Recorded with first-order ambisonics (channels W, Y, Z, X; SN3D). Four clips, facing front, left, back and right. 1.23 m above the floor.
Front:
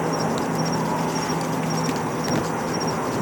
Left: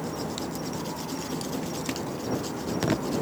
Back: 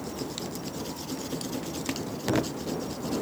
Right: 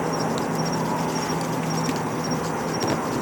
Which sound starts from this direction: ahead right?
An insect, at 0.0 s.